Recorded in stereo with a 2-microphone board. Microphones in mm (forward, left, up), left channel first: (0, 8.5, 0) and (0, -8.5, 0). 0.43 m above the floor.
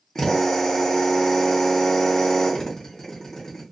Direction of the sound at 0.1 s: 25° left (ahead or behind).